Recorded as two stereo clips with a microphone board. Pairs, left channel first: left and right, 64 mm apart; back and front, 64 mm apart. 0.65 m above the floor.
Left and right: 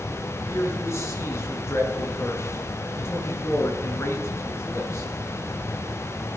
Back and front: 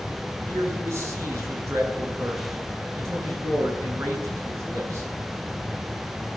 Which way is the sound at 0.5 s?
45° left.